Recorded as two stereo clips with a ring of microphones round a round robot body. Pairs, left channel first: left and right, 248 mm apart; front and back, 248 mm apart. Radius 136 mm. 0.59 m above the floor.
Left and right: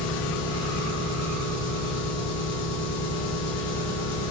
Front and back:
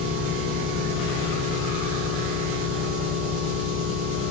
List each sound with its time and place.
0.0 s an engine running: 120° left, 5 m